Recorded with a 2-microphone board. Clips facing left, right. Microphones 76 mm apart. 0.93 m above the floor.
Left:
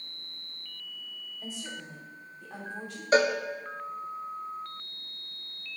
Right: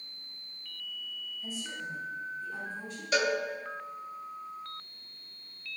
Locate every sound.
1.4 s a woman speaking: 80° left, 2 m
3.1 s a cowbell: 35° left (ahead or behind), 0.5 m